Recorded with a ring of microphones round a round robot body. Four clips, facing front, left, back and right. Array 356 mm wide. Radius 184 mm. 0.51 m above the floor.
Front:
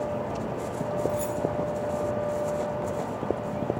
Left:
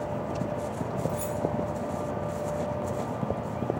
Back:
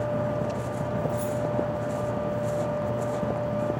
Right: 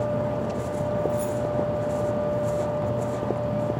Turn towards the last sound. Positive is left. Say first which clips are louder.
# right 6 dB, even
turn(degrees=50)